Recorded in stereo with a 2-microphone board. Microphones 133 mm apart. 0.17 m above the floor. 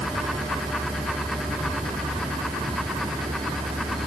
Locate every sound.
0.0 s a vehicle: 35° right (ahead or behind); by 4.1 s 40° right (ahead or behind)